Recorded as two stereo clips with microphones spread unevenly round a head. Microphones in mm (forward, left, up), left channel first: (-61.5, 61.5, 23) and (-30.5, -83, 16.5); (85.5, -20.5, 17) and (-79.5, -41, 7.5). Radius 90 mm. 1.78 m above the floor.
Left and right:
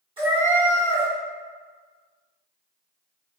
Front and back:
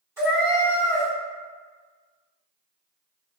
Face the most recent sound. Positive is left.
turn(degrees=-105)